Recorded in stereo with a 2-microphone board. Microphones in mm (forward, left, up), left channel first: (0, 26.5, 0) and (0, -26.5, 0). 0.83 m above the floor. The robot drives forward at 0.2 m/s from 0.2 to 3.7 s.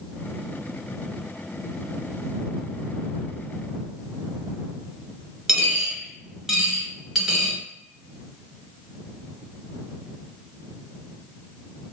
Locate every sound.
5.5 s a dropped coin: 10° right (ahead or behind), 1.5 m